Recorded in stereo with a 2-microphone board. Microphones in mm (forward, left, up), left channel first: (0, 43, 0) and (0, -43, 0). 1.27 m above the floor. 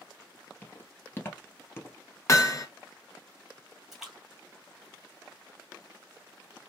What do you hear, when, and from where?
0.6 s footsteps: 25° left (ahead or behind), 1.5 m; by 2.0 s 30° left (ahead or behind), 1.4 m
2.3 s hammering: 35° left (ahead or behind), 0.8 m
3.9 s a splash: 5° right (ahead or behind), 1.8 m